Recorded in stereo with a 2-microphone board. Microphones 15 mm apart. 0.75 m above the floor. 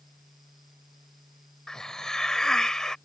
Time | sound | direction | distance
1.7 | a hiss | 45° left (ahead or behind) | ?